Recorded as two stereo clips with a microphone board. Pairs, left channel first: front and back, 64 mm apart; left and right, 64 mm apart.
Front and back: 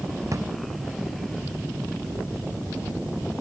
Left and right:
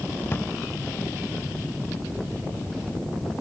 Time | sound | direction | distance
0.3 | a drawer | 145° left | ?